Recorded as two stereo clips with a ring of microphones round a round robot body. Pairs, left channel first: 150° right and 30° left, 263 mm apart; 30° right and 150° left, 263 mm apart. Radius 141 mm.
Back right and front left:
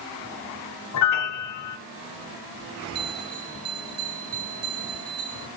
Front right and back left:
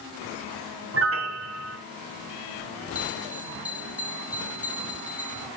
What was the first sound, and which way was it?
A piano, 170° right.